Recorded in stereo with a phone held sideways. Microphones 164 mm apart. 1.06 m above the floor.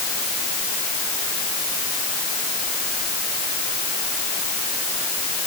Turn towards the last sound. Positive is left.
No sound to turn to.